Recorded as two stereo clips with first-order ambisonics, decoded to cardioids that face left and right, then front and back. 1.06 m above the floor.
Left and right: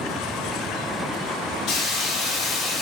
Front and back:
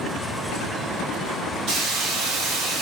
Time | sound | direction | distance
1.7 | a hiss | 140° left | 0.7 m